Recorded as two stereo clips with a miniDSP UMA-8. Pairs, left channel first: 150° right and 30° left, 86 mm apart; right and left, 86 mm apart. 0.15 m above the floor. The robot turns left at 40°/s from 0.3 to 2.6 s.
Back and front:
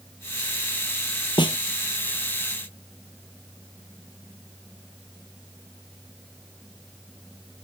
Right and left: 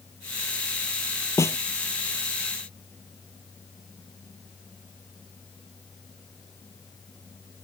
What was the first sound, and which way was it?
A snare drum, 140° right.